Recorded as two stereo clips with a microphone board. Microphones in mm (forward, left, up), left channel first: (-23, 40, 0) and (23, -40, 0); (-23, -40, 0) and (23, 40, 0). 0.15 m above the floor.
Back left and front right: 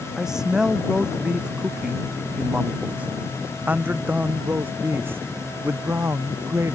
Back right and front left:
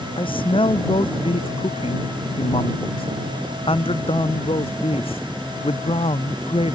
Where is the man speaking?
145° right; by 6.8 s 120° right.